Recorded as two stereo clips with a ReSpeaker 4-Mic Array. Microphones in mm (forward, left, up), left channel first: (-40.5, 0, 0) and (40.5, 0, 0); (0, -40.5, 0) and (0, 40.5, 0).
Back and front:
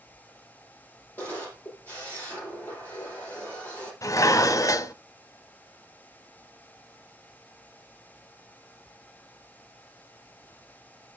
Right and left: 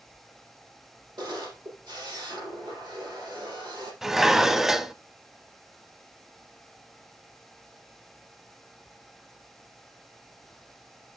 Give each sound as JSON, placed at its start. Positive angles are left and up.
{"t": 1.2, "sound": "a camera shutter", "azimuth_deg": 115, "distance_m": 6.5}
{"t": 4.0, "sound": "dishes clattering", "azimuth_deg": 175, "distance_m": 0.8}